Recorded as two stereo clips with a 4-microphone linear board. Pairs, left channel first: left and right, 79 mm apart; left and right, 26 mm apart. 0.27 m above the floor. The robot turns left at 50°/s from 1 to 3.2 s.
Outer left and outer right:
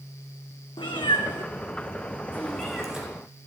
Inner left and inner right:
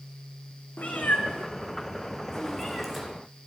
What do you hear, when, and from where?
0.8 s a cat meowing: 85° left, 1.4 m; by 3.0 s 10° right (ahead or behind), 1.4 m